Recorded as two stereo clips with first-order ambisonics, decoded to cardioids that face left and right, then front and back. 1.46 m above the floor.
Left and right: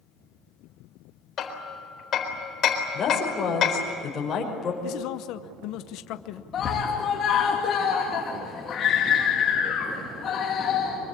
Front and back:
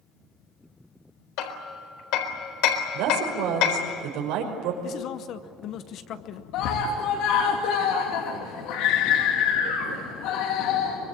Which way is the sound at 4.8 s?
50° left.